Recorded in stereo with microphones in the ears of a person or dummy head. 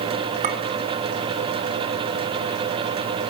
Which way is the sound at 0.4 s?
45° right (ahead or behind).